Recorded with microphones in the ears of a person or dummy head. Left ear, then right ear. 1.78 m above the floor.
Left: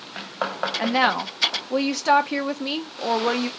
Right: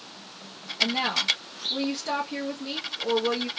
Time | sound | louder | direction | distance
0.8 | a woman speaking | left 3 dB | 40° left (ahead or behind) | 0.6 m